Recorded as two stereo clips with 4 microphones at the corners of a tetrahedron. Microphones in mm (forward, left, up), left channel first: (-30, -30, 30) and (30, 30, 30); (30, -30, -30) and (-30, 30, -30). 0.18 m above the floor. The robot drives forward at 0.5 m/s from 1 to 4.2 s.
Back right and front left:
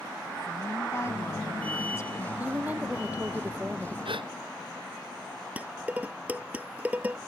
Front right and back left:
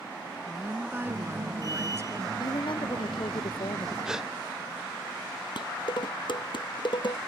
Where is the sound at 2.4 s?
25° right.